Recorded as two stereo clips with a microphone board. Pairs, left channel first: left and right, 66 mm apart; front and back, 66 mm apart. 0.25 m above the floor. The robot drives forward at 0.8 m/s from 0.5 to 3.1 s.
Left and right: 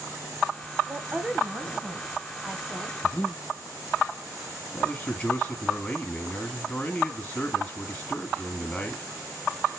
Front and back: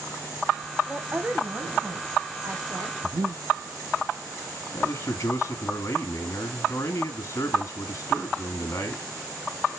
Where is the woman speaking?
120° right, 1.3 m; by 2.9 s 165° right, 2.5 m.